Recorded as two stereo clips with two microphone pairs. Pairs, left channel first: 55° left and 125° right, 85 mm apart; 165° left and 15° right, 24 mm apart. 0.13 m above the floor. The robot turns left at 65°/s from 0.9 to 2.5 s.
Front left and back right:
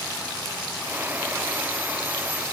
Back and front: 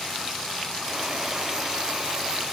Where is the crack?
I don't hear a crack.